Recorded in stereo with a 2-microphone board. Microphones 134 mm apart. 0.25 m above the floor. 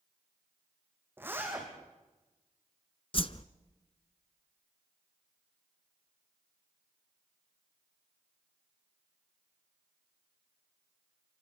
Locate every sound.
1.2 s a zipper: 15° right (ahead or behind), 5.5 m
3.1 s a whoosh: 45° left (ahead or behind), 0.8 m